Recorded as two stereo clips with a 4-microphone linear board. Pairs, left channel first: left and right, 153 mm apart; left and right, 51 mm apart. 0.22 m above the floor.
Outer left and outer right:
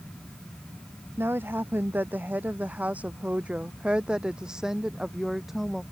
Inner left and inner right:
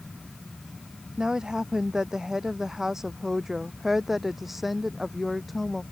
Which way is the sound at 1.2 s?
15° right (ahead or behind).